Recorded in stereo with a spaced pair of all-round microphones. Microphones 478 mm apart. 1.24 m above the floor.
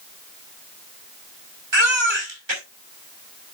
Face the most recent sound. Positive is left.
turn(degrees=-65)  # may be behind; listen again after turning